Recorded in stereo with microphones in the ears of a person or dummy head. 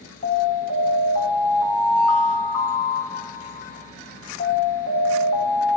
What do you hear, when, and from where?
0.2 s an alarm: 35° left (ahead or behind), 1.7 m